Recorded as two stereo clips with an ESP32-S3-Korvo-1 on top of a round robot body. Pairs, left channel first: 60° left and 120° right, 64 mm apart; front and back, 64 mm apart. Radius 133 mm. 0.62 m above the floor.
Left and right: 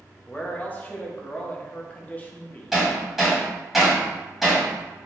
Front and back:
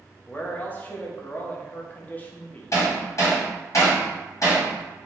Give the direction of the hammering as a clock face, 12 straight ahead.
1 o'clock.